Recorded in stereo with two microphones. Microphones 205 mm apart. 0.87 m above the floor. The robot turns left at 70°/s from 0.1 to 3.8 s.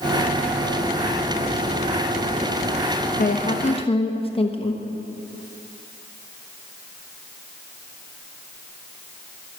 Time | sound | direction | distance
3.2 | a woman speaking | 85° left | 0.9 m